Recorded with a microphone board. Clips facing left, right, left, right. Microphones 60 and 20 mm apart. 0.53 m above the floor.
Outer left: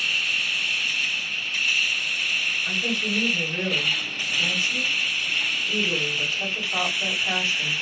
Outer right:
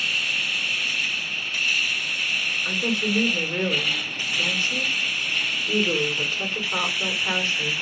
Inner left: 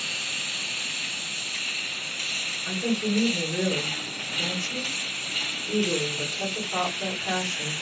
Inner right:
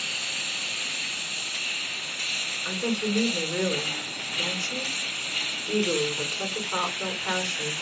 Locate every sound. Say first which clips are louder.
2.6 s a woman speaking: outer right 2 dB, inner left 2 dB; 40° right (ahead or behind), 1.9 m